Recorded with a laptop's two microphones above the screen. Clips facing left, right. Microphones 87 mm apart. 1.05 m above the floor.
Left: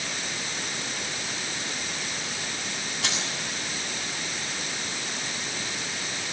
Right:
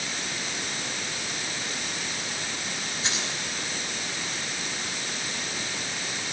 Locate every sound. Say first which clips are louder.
3.0 s keys jangling: left 1 dB; 70° left (ahead or behind), 7 m